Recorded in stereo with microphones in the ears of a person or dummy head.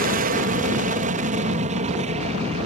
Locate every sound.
0.0 s an aircraft: 45° right (ahead or behind); by 2.7 s 35° right (ahead or behind)